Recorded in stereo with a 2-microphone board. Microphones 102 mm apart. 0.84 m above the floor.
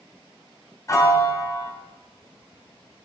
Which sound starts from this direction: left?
A piano, at 0.9 s.